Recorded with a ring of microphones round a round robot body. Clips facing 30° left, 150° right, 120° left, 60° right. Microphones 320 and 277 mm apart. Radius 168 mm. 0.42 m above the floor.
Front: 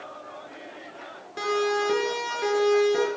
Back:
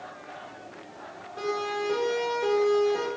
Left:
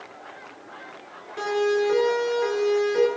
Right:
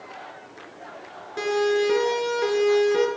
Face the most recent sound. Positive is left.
turn(degrees=-25)